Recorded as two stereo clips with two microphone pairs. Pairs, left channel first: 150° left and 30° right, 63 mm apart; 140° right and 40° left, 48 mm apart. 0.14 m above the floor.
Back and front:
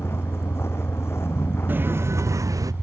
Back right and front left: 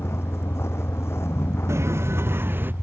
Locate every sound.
0.0 s a vehicle: 160° right
1.7 s footsteps: 30° left; by 2.7 s 5° right